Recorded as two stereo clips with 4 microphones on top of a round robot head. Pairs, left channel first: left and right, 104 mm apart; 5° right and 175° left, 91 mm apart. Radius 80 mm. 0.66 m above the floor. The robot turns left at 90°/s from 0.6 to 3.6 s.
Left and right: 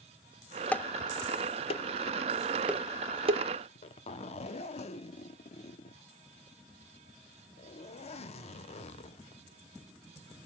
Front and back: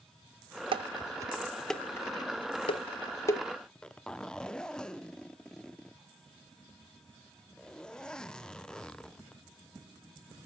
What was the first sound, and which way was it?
Dishes clattering, 165° left.